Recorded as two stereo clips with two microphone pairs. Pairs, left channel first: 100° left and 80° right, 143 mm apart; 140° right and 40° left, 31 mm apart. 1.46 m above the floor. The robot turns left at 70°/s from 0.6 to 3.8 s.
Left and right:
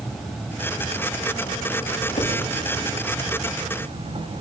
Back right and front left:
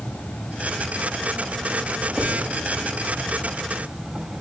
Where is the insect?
170° right, 5 m; by 4.4 s 35° right, 5 m.